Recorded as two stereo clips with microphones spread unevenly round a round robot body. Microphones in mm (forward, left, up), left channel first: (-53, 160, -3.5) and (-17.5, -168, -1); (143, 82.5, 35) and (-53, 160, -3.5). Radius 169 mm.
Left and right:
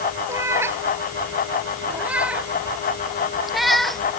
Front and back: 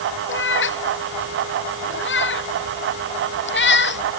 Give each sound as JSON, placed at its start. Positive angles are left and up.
{"t": 0.3, "sound": "a cat meowing", "azimuth_deg": 0}